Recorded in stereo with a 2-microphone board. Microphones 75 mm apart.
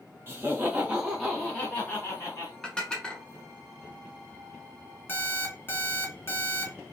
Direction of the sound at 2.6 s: 10° left (ahead or behind).